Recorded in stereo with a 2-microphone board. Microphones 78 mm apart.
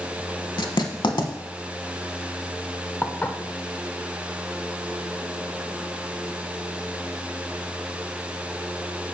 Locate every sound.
0.6 s writing: 80° left, 0.8 m
3.0 s dishes clattering: 20° left (ahead or behind), 0.5 m